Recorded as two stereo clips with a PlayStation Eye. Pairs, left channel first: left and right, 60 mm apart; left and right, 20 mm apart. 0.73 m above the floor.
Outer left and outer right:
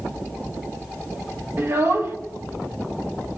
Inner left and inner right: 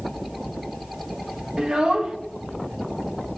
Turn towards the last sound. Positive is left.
turn(degrees=-50)  # may be behind; listen again after turning